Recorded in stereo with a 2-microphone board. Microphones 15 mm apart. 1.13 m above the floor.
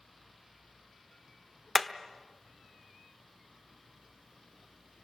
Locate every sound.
1.8 s hammering: 10° left (ahead or behind), 1.0 m